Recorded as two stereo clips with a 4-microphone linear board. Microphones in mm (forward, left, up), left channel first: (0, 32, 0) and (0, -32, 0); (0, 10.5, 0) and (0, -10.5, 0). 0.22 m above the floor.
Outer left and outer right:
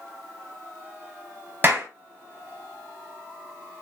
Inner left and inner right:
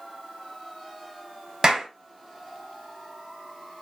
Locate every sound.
1.6 s a clap: 30° right (ahead or behind), 1.2 m